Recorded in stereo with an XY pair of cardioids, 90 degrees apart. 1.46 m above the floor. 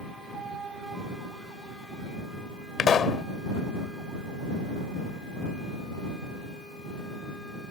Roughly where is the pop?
Ahead left.